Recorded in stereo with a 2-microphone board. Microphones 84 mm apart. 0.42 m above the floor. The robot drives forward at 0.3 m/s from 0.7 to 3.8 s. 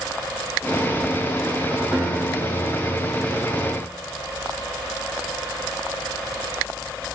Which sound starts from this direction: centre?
A guitar, at 1.9 s.